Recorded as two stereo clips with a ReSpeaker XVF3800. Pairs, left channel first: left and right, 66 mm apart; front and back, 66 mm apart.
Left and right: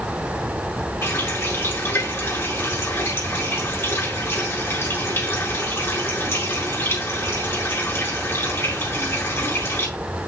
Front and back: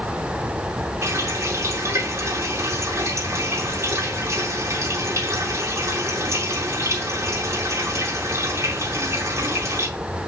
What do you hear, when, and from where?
1.0 s a running tap: 145° left, 4.5 m